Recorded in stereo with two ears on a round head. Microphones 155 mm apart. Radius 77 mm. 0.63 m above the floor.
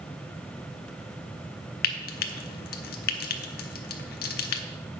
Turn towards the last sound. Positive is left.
turn(degrees=60)  # may be behind; listen again after turning